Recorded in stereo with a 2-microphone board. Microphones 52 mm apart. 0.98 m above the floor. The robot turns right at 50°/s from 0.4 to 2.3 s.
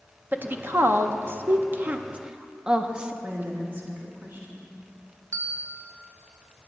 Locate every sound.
0.3 s a woman speaking: 40° right (ahead or behind), 0.5 m; by 3.1 s 15° right (ahead or behind), 0.5 m
3.2 s a woman speaking: 40° right (ahead or behind), 1.7 m
5.3 s a bell: 70° right (ahead or behind), 1.0 m